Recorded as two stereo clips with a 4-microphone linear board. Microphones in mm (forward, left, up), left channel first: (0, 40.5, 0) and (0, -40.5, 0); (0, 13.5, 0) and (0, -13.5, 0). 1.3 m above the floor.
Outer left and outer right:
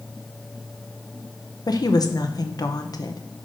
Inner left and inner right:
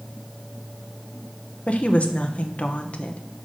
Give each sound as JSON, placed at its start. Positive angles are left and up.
{"t": 1.7, "sound": "a woman speaking", "side_deg": 50, "distance_m": 0.8}